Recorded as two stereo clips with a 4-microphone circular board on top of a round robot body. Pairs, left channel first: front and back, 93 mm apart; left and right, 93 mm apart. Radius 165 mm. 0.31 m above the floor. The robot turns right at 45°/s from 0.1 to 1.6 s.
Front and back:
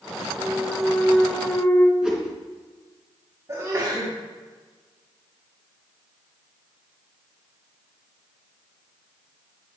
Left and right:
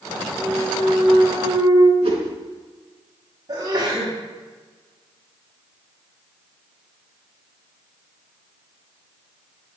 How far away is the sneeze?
About 4 m.